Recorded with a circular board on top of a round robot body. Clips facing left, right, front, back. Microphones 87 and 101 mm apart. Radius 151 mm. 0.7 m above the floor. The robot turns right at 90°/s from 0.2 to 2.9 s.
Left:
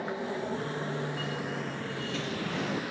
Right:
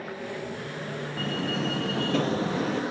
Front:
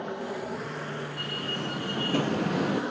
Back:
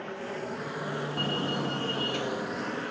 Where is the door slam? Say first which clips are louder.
Right 5 dB, back 4 dB; 140° right; by 2.8 s 10° left.